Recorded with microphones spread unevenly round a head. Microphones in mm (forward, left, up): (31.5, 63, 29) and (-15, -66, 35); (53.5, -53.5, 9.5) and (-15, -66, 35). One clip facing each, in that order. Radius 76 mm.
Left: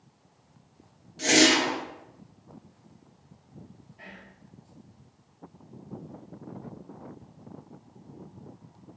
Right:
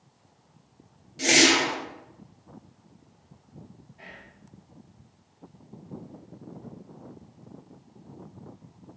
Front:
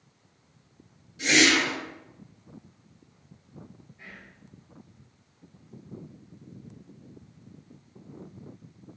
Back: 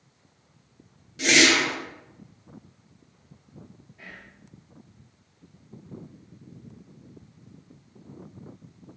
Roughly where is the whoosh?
Behind.